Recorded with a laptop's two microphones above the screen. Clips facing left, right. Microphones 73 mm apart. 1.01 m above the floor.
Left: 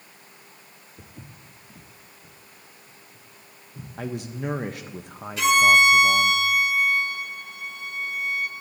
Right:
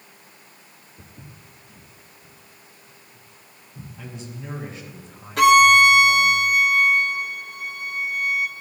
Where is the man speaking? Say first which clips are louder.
Left 8 dB; 70° left (ahead or behind), 0.6 m.